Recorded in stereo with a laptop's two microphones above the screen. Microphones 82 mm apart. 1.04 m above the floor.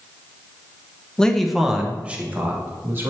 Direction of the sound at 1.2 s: 10° left (ahead or behind).